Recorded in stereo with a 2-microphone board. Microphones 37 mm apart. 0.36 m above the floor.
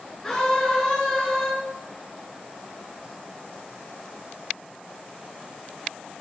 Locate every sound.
0.2 s a scream: 15° left (ahead or behind), 4 m